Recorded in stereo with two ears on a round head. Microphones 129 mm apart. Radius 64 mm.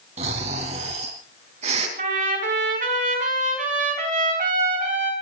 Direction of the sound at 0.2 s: 45° right (ahead or behind).